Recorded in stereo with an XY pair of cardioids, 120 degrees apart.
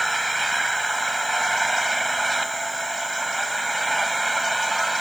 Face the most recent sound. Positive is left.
turn(degrees=-10)